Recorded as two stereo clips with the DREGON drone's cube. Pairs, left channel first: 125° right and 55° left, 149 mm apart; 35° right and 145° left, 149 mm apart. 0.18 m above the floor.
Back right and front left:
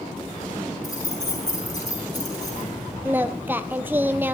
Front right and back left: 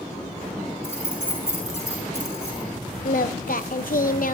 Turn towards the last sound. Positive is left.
turn(degrees=-20)